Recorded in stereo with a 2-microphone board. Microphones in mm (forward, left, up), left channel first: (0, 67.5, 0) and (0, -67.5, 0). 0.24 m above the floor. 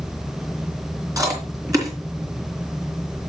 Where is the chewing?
25° right (ahead or behind), 3.5 m.